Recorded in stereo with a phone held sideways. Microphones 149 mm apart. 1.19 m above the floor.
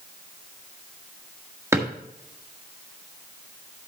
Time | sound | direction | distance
1.7 | a drawer | 20° right (ahead or behind) | 1.6 m